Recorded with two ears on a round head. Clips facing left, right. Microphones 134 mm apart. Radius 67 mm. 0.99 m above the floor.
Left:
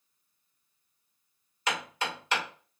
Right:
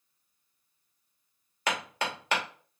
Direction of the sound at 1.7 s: 50° right (ahead or behind).